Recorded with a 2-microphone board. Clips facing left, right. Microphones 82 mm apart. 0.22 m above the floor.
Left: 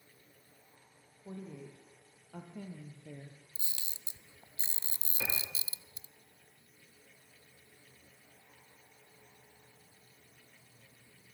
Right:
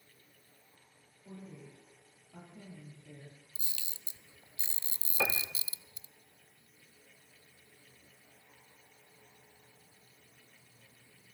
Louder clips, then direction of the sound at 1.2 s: Left 4 dB; 75° left (ahead or behind).